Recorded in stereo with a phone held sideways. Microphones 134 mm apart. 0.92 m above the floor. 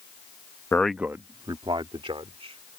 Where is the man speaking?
20° left (ahead or behind); by 2.8 s 50° right (ahead or behind).